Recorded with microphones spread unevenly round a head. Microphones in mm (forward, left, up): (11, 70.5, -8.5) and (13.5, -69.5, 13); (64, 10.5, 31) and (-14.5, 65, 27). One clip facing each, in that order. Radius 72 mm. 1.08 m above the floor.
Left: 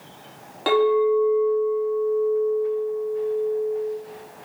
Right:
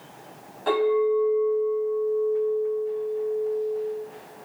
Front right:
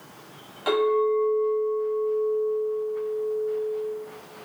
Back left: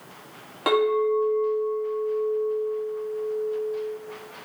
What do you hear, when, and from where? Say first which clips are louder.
0.7 s a clink: left 3 dB, even; 110° left, 1.5 m